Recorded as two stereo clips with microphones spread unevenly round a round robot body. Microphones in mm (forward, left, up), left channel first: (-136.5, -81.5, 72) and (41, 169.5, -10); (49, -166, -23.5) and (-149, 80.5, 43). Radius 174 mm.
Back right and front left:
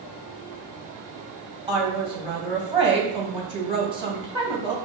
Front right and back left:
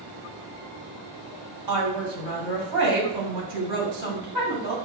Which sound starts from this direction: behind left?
A woman speaking, at 1.7 s.